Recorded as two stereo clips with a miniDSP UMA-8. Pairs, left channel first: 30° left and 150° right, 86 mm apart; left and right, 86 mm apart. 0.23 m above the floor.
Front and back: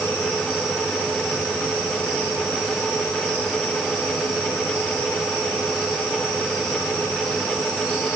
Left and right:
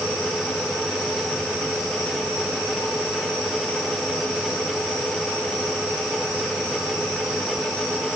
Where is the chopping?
I don't hear chopping.